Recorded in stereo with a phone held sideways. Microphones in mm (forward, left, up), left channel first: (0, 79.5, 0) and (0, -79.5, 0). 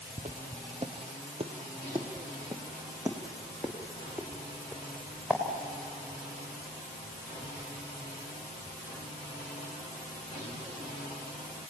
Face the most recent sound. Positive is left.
turn(degrees=-5)  # may be behind; listen again after turning